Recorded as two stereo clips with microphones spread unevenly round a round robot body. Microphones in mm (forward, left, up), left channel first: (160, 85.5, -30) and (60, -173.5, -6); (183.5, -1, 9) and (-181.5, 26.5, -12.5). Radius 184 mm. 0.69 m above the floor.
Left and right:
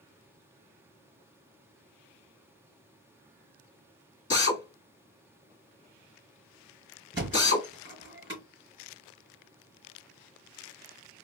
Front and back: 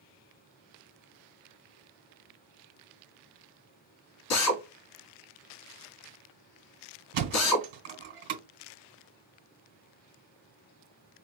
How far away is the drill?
About 1.5 m.